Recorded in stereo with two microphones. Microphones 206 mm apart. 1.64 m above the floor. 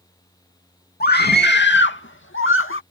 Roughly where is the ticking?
No ticking in this recording.